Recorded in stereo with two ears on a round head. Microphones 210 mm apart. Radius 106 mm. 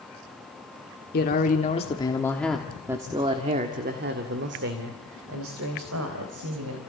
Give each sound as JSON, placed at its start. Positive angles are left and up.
{"t": 1.1, "sound": "a man speaking", "side_deg": 40, "distance_m": 1.9}